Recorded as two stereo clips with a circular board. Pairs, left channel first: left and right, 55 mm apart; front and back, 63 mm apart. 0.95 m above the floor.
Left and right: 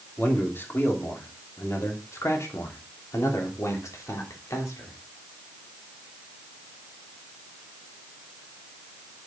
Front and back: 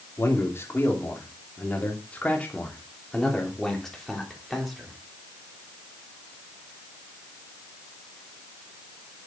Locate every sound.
0.2 s a man speaking: 45° left, 3 m; by 5.0 s 90° left, 3.5 m